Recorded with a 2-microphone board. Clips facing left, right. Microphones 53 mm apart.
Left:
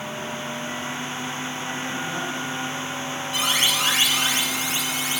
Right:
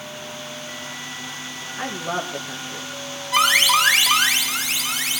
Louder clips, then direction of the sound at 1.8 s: Right 5 dB; 70° right (ahead or behind).